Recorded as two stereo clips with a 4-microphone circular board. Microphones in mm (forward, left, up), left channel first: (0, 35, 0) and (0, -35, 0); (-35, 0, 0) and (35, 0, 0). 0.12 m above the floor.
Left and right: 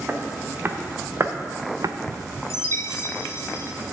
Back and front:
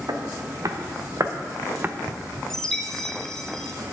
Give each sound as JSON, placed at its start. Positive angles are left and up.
{"t": 0.1, "sound": "footsteps", "azimuth_deg": -30, "distance_m": 1.4}
{"t": 2.5, "sound": "a chime", "azimuth_deg": 100, "distance_m": 0.8}